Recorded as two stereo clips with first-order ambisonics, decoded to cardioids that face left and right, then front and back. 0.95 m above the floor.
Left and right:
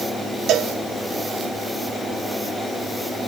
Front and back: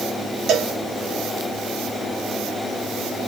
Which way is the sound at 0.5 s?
135° right.